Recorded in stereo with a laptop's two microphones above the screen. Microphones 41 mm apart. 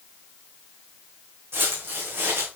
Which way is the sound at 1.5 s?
60° right (ahead or behind).